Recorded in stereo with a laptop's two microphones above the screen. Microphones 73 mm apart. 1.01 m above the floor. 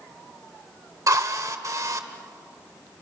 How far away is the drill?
About 1.4 m.